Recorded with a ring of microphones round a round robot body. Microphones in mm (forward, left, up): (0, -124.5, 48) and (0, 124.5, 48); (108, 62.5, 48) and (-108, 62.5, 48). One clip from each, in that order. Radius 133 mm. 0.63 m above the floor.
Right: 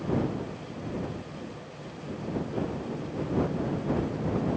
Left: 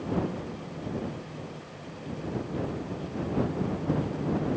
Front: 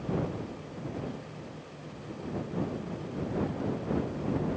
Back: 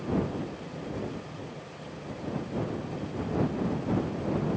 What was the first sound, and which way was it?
Only background noise.